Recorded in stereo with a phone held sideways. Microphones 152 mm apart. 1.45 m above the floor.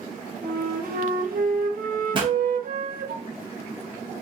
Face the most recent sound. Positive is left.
turn(degrees=-35)  # may be behind; listen again after turning